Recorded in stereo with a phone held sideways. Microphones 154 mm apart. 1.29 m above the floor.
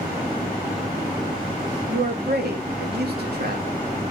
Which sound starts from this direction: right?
A man speaking, at 1.9 s.